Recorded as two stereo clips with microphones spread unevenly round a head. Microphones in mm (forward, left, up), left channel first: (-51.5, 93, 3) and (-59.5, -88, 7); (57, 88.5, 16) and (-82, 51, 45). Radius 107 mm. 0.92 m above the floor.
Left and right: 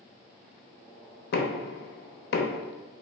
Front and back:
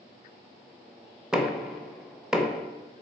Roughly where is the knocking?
Left.